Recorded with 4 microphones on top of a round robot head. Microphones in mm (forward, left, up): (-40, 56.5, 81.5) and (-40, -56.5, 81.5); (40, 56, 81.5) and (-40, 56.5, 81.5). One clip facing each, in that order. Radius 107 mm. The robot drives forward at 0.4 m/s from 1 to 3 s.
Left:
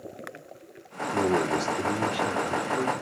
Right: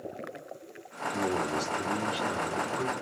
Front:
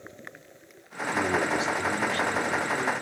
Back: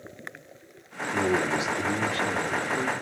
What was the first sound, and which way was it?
A man speaking, 105° left.